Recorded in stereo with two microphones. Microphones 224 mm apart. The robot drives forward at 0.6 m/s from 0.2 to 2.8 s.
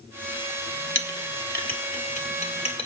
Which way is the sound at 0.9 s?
60° left (ahead or behind).